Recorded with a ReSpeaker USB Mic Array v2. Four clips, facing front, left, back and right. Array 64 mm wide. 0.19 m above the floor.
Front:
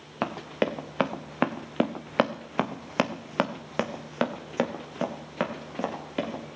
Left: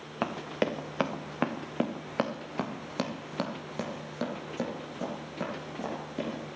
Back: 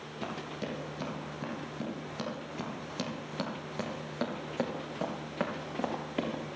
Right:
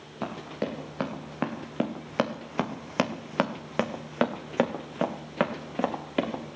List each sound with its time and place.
0.2 s running footsteps: 30° left, 1.9 m; by 6.4 s 80° right, 3 m